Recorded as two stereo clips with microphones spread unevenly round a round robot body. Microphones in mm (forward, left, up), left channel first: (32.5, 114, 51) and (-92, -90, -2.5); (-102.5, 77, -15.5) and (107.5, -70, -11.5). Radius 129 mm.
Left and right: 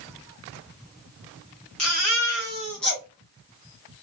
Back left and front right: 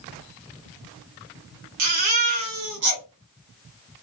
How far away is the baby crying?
About 1.5 m.